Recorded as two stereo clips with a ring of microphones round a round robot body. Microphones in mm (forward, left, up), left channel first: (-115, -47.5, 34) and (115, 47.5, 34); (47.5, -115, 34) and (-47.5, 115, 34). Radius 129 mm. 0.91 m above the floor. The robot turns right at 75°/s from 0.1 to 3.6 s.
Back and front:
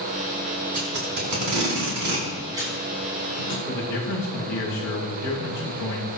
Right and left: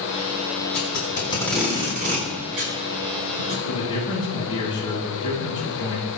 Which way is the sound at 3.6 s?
140° right.